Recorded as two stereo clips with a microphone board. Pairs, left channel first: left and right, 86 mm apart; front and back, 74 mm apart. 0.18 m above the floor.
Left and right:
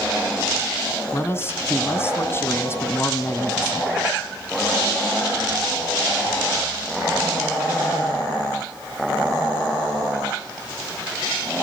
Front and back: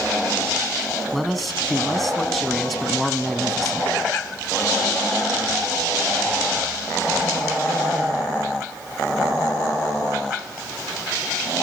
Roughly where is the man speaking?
Left.